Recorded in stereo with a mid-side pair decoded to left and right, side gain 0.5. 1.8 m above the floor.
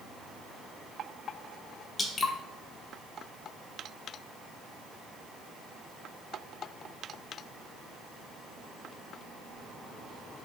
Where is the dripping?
35° left, 0.6 m.